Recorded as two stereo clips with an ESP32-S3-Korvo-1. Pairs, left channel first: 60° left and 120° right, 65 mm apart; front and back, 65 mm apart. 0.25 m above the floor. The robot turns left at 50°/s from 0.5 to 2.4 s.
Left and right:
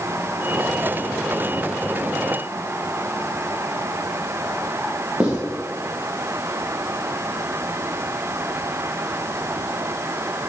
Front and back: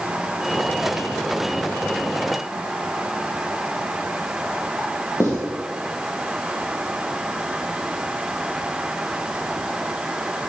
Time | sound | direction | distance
5.2 | writing | 50° right | 2.5 m